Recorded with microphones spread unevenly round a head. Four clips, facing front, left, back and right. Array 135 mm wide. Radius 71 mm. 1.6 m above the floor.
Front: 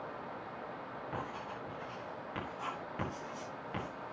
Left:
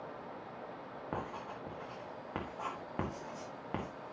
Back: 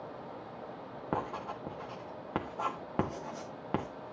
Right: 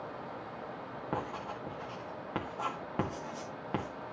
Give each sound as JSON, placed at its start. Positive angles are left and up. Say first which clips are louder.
{"t": 1.1, "sound": "writing", "louder": "right 4 dB, back 8 dB", "azimuth_deg": -175, "distance_m": 1.7}